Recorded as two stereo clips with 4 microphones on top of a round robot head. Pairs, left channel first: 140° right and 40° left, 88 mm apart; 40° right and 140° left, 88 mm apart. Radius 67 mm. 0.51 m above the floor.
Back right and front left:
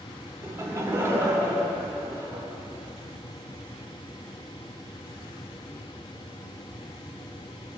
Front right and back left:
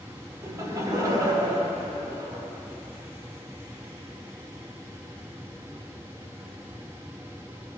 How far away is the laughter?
About 1.5 m.